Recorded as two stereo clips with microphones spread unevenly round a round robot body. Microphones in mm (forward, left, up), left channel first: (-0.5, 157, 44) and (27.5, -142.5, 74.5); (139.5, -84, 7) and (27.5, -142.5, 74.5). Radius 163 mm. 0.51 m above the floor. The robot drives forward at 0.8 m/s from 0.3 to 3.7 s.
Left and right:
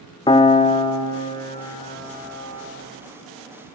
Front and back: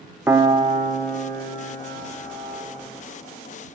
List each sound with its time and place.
0.3 s a piano: 80° left, 0.5 m; by 2.6 s 175° left, 1.9 m